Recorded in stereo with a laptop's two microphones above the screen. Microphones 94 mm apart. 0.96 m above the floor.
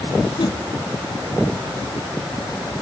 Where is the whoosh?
55° left (ahead or behind), 1.1 m.